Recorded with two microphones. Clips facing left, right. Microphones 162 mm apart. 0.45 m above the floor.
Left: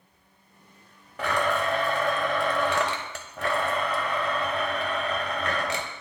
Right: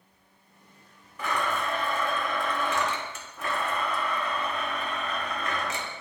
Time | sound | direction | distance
1.2 | a blender | 70° left (ahead or behind) | 0.8 m